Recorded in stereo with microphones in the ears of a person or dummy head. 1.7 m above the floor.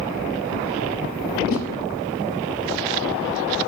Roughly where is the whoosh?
Left.